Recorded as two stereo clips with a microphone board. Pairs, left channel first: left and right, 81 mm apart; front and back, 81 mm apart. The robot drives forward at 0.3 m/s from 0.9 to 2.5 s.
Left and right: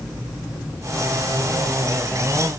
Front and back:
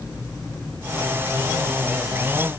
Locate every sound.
Only background noise.